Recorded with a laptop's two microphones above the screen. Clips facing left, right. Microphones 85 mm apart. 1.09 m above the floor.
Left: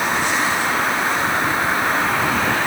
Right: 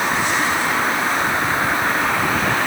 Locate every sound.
Only background noise.